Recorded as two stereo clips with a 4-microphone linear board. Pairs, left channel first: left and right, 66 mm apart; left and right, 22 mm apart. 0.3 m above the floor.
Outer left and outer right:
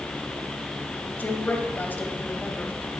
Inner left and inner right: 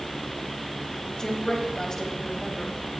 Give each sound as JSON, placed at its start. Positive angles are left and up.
{"t": 1.2, "sound": "a woman speaking", "side_deg": 30, "distance_m": 1.4}